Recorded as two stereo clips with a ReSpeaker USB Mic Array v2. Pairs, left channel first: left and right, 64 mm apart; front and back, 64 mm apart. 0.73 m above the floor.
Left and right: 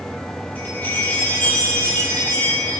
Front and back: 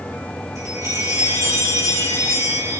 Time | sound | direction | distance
0.6 | a chime | 150° left | 5.5 m